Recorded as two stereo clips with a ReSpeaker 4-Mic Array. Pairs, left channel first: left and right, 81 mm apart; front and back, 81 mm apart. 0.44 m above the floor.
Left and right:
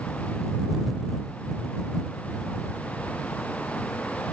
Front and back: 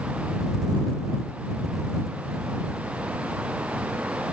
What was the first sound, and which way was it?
Only background noise.